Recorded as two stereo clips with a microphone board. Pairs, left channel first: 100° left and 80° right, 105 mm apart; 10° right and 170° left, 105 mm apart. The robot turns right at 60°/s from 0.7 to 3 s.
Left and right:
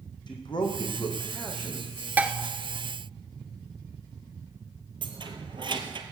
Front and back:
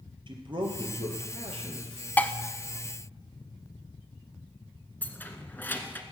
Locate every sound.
0.3 s a man speaking: 140° left, 3 m; by 2.1 s 140° right, 3 m
2.2 s dishes clattering: 50° right, 0.8 m; by 2.3 s 40° right, 0.8 m
5.0 s keys jangling: 80° right, 1.3 m